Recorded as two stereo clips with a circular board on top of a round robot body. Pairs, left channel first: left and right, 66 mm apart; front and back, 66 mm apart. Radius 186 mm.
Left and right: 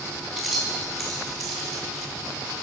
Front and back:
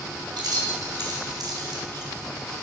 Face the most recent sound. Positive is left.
turn(degrees=180)